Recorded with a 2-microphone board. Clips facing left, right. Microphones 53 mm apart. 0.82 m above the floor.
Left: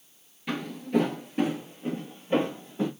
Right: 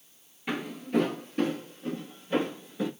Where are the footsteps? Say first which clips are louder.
Left 2 dB; 15° right (ahead or behind), 0.8 m; by 2.9 s 35° left (ahead or behind), 1.4 m.